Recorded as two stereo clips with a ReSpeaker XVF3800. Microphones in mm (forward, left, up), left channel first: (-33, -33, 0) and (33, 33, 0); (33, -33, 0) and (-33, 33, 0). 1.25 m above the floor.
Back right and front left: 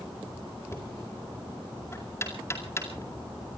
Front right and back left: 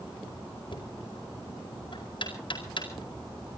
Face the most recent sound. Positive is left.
turn(degrees=-75)